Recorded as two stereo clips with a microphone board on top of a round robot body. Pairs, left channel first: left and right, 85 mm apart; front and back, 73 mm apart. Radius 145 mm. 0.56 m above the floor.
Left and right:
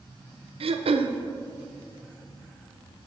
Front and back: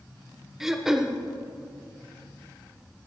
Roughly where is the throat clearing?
Right.